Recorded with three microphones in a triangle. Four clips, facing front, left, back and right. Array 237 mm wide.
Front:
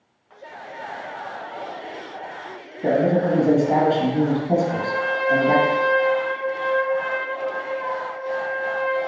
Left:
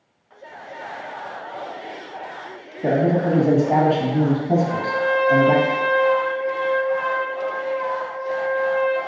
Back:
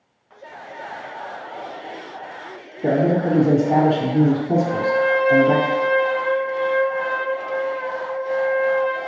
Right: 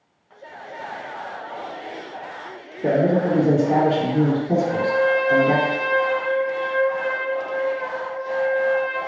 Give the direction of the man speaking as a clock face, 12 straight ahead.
9 o'clock.